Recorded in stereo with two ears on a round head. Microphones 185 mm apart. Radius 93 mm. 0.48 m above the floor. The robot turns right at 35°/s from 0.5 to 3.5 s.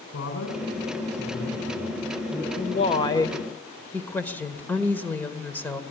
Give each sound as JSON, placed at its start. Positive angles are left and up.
{"t": 0.1, "sound": "a man speaking", "side_deg": 80, "distance_m": 4.0}
{"t": 2.5, "sound": "a woman speaking", "azimuth_deg": 135, "distance_m": 1.7}